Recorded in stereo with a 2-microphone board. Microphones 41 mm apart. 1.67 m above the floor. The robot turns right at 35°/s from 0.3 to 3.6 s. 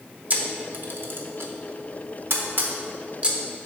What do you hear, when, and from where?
0.3 s a camera shutter: 35° right (ahead or behind), 0.8 m; by 3.4 s 30° right (ahead or behind), 0.8 m